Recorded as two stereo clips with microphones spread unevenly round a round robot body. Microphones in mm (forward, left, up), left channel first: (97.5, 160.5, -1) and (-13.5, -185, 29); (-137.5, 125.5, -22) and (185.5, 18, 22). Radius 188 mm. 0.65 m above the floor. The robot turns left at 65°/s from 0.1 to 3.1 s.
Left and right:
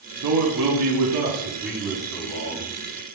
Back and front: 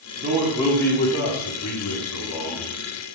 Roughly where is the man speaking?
Right.